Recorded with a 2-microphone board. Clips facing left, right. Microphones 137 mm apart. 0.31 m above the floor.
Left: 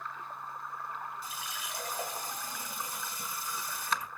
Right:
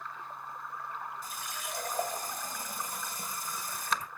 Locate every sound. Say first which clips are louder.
1.2 s a running tap: right 1 dB; 45° right (ahead or behind), 1.1 m